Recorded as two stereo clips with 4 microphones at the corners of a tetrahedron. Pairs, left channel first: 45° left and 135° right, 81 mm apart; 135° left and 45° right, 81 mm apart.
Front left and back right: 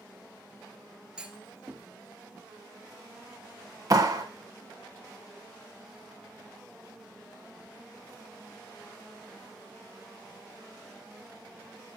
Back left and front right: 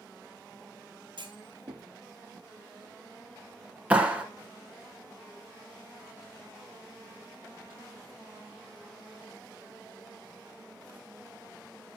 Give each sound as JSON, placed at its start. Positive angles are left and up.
{"t": 1.2, "sound": "a clunk", "azimuth_deg": -55, "distance_m": 1.0}
{"t": 3.9, "sound": "a clap", "azimuth_deg": -115, "distance_m": 1.2}